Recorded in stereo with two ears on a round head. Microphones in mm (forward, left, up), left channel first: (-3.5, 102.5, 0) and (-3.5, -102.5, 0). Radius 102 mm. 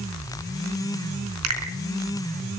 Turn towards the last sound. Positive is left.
turn(degrees=-80)